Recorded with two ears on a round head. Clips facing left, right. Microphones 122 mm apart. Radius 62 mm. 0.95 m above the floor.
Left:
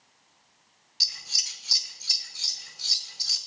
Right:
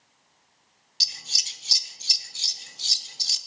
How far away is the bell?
No bell in this recording.